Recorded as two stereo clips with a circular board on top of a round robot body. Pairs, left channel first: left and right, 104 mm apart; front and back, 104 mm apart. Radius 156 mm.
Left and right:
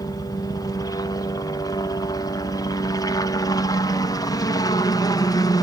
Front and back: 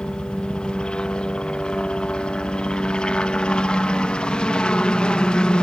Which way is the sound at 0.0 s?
75° left.